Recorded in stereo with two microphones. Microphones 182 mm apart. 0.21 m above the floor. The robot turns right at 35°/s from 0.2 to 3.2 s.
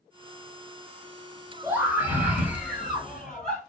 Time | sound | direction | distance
1.6 | a scream | 15° right (ahead or behind) | 0.9 m